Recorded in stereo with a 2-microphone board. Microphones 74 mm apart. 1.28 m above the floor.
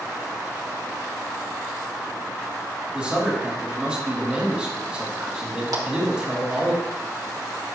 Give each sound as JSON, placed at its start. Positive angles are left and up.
{"t": 2.9, "sound": "a man speaking", "side_deg": -15, "distance_m": 3.0}
{"t": 5.7, "sound": "a clap", "side_deg": -55, "distance_m": 2.0}